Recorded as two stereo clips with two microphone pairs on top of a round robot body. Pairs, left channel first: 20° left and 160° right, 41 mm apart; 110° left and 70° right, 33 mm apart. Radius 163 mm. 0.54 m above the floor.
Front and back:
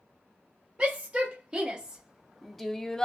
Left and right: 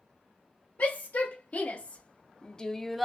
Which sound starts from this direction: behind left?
A shout, at 0.8 s.